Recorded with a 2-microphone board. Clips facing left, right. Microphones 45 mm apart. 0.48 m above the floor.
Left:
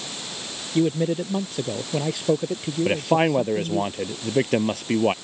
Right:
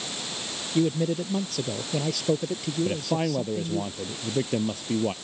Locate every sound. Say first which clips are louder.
0.8 s a man speaking: left 3 dB; 25° left (ahead or behind)
2.9 s a man speaking: left 9 dB; 55° left (ahead or behind)